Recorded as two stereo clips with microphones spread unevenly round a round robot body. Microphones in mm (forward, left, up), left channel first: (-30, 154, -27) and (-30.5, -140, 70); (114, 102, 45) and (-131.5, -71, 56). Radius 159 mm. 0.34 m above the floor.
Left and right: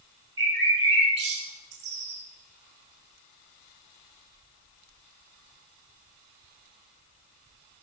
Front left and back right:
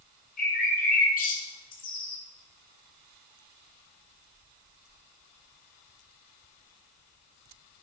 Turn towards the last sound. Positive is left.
turn(degrees=-30)